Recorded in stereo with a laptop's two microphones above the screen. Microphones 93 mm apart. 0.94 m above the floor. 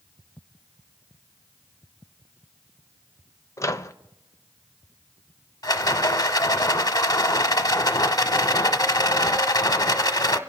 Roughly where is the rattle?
Left.